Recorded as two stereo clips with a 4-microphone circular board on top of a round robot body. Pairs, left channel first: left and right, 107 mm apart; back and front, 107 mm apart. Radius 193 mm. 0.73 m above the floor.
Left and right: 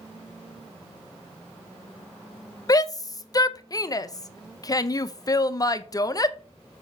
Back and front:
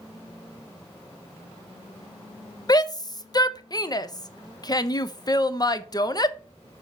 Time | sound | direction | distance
2.7 | a shout | 140° left | 0.9 m